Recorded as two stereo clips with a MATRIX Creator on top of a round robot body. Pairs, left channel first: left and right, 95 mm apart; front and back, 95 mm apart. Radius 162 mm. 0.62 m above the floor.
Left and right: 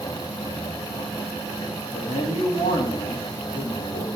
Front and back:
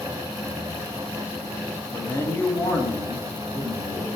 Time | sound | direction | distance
1.9 | a man speaking | 60° left | 1.7 m